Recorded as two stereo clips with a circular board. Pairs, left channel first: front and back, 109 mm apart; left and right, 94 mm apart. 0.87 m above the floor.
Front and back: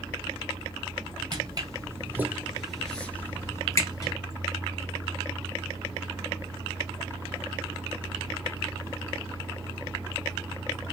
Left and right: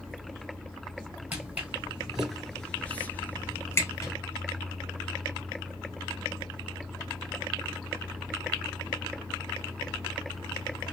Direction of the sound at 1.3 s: 155° right.